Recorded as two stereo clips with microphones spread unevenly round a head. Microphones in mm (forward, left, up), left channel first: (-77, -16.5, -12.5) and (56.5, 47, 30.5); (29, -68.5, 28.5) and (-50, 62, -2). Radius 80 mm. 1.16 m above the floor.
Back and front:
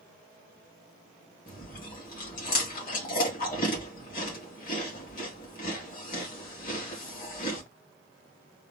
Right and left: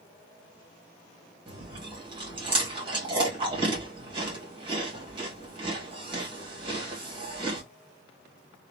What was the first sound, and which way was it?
Chewing, straight behind.